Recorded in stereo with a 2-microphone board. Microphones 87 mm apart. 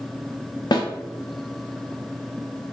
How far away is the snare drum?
About 0.5 m.